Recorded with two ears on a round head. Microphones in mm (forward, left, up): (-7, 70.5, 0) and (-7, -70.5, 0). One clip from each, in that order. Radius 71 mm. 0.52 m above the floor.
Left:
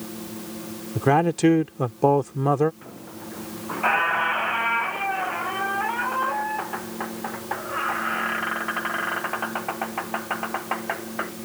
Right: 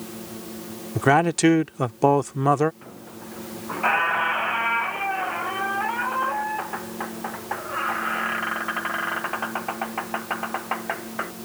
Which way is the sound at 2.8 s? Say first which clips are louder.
Left 1 dB; 5° right (ahead or behind).